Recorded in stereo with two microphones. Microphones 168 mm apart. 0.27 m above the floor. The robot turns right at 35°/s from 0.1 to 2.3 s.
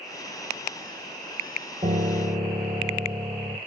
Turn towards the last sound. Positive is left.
turn(degrees=-10)  # may be behind; listen again after turning